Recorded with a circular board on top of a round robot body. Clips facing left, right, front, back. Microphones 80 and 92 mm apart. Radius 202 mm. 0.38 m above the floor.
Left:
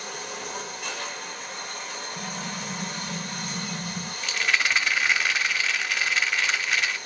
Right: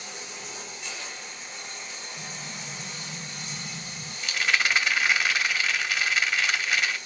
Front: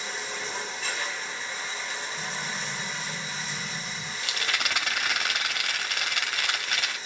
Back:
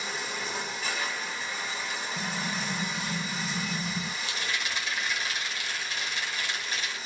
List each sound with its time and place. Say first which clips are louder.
0.0 s running water: left 6 dB, even; 95° left, 1.3 m
2.2 s an explosion: left 7 dB, back 1 dB; 130° left, 0.8 m
4.2 s a rattle: even, front 2 dB; 5° right, 1.1 m